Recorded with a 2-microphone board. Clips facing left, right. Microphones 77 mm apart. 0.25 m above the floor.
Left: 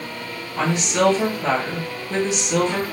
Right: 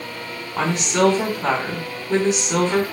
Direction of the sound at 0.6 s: 40° right (ahead or behind).